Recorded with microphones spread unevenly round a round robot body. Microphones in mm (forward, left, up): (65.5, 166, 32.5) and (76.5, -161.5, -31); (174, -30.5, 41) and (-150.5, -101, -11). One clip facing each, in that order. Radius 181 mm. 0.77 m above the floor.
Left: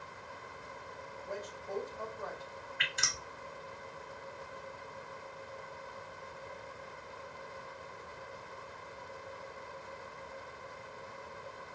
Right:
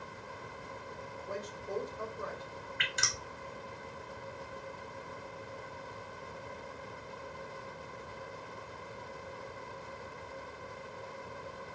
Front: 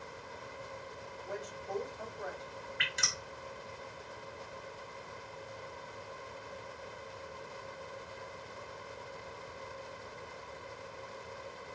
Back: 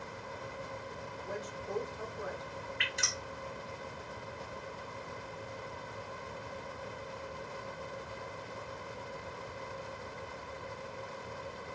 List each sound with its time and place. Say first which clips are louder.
1.2 s a woman speaking: right 1 dB, back 1 dB; 155° right, 1.9 m
2.8 s dripping: right 3 dB, back 3 dB; 55° right, 1.3 m